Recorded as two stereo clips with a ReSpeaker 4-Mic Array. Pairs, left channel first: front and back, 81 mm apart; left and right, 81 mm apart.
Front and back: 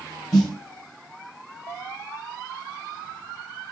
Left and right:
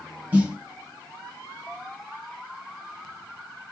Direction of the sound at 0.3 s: 110° right.